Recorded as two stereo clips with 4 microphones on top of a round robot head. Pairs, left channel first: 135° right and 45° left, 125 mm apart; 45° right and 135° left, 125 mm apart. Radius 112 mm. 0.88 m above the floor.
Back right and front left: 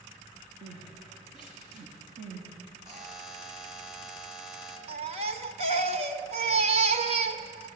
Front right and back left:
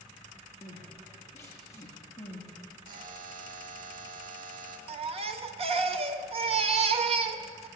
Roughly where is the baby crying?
Left.